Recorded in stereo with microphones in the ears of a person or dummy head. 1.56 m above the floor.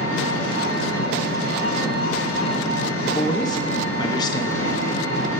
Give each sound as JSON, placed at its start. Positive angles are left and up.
{"t": 0.0, "sound": "an engine running", "side_deg": 85, "distance_m": 4.5}
{"t": 3.1, "sound": "a woman speaking", "side_deg": 25, "distance_m": 1.1}